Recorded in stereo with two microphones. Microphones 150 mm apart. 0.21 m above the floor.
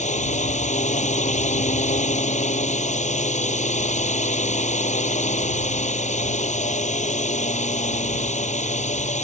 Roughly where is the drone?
Left.